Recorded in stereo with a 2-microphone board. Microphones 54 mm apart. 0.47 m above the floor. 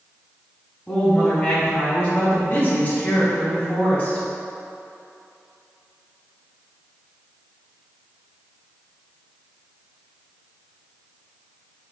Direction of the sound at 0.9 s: 20° left (ahead or behind).